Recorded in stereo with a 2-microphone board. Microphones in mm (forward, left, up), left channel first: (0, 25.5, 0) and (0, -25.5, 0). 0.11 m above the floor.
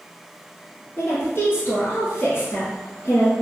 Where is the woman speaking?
45° left (ahead or behind), 1.7 m.